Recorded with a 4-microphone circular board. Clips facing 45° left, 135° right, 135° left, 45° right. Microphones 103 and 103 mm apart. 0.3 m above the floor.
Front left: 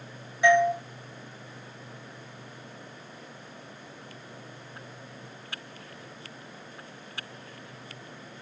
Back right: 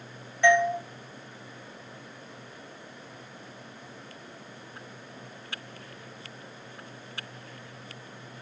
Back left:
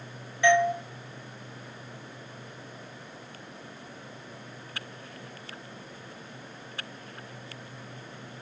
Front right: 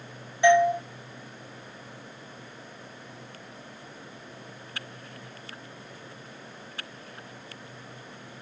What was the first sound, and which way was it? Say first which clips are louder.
A doorbell: front left 1 dB, front right 3 dB; 15° right.